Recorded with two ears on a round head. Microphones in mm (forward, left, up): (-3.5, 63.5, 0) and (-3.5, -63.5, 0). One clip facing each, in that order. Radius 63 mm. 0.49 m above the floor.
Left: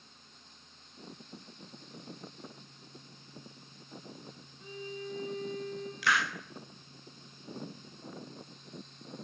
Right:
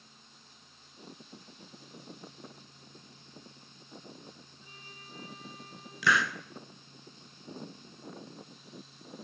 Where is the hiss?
80° right, 1.7 m.